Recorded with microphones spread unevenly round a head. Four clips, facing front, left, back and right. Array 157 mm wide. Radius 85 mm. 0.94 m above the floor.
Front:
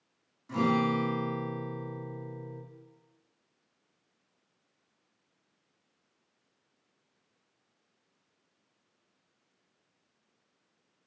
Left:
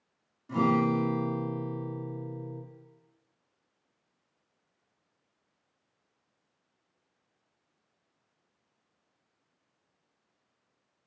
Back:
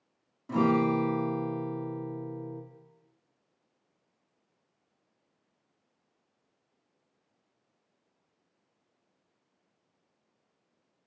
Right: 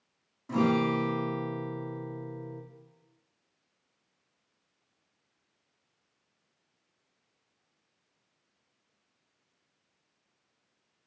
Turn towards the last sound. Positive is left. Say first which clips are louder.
# left 1 dB, back 2 dB
turn(degrees=-155)